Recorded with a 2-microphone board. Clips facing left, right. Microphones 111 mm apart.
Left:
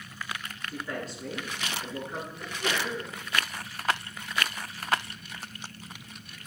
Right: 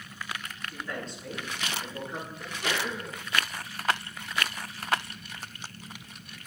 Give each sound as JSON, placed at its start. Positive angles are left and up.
{"t": 0.7, "sound": "a man speaking", "side_deg": 10, "distance_m": 9.0}
{"t": 2.4, "sound": "a sneeze", "side_deg": -10, "distance_m": 7.0}